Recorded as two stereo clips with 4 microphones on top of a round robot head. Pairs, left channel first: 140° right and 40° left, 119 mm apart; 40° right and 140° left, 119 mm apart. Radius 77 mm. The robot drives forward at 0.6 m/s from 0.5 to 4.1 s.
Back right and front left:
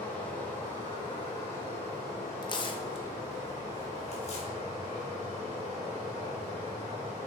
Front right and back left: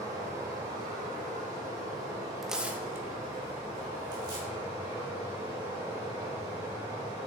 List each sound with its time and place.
0.0 s running water: 165° left, 2 m; by 7.3 s 175° left, 4.5 m
2.4 s tearing paper: 130° right, 0.8 m; by 4.5 s 165° right, 1.5 m